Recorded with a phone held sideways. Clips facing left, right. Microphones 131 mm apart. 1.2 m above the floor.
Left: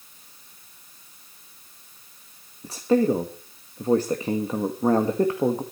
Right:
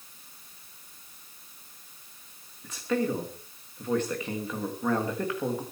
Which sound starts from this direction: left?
A man speaking, at 2.6 s.